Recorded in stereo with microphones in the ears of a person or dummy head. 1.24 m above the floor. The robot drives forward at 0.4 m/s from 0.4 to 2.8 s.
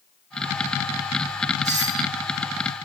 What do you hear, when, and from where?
1.6 s a doorbell: 15° right (ahead or behind), 1.3 m